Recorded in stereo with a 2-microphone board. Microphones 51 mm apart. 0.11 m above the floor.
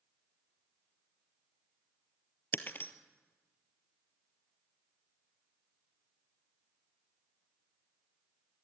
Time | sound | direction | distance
2.5 | breaking glass | 40° left (ahead or behind) | 1.3 m